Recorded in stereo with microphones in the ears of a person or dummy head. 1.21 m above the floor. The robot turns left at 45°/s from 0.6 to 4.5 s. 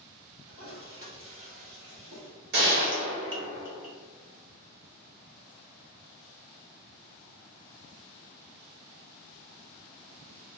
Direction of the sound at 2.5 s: 115° right.